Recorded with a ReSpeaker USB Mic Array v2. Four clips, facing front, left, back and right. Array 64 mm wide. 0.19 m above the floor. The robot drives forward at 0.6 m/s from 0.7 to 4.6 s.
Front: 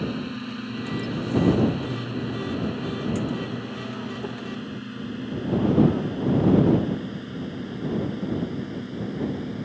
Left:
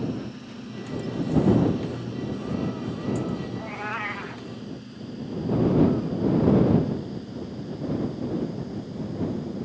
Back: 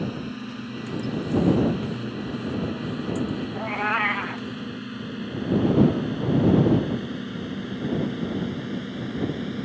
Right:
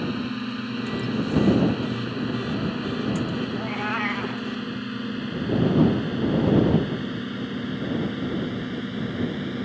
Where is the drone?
80° right; by 9.6 s 110° right.